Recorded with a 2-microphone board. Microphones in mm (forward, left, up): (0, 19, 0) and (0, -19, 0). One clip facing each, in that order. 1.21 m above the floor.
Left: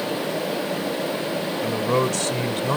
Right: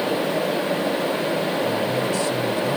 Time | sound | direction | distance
1.6 | a man speaking | 75° left (ahead or behind) | ?